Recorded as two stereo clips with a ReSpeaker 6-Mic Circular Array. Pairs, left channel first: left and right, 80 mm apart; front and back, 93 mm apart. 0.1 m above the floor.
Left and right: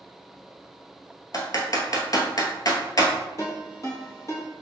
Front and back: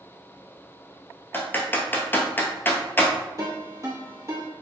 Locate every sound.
1.3 s typing on a keyboard: 65° left, 0.9 m
3.4 s a ringtone: 130° left, 2 m